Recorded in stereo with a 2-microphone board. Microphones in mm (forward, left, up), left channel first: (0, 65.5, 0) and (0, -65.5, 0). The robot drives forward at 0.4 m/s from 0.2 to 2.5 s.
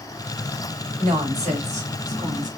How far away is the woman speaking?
About 2 m.